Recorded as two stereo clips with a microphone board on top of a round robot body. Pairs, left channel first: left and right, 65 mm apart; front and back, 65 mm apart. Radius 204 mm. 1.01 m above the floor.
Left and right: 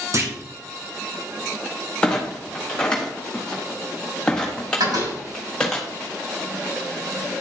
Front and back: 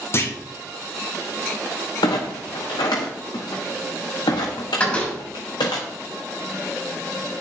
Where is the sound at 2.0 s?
15° left, 0.5 m.